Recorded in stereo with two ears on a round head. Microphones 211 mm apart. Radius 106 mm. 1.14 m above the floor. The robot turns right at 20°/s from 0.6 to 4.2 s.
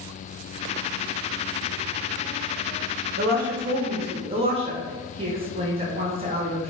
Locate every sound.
3.2 s a woman speaking: 40° right (ahead or behind), 0.7 m; by 6.7 s 25° right (ahead or behind), 0.7 m